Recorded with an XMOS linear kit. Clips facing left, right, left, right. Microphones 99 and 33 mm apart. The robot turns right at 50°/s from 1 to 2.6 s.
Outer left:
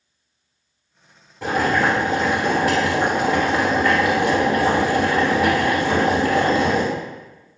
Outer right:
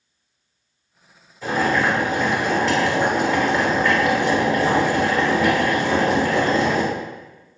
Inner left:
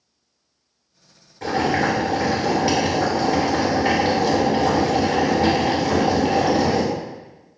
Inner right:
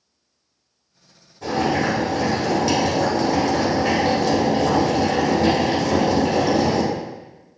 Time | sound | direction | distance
1.4 | boiling | 105° left | 1.8 m